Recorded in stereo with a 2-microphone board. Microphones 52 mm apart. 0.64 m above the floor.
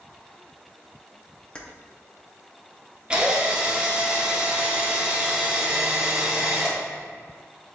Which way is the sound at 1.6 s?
20° left (ahead or behind).